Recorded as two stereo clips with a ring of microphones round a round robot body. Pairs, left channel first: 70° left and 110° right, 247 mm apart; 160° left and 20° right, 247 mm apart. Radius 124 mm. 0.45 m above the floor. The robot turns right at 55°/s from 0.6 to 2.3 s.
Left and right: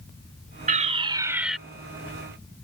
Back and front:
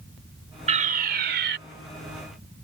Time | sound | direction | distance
0.7 | a fire alarm | 70° right | ?